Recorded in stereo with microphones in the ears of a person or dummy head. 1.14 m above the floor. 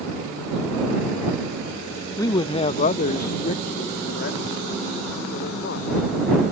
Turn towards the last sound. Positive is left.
turn(degrees=50)  # may be behind; listen again after turning